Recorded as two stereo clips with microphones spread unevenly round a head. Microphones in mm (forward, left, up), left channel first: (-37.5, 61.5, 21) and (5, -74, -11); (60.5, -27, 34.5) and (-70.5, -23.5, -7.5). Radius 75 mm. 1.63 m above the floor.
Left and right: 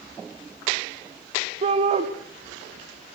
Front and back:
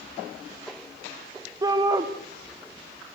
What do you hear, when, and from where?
1.6 s a shout: 120° right, 1.7 m